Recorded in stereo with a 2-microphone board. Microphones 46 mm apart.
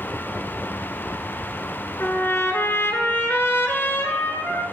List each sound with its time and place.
2.0 s a trumpet: 60° left (ahead or behind), 0.9 m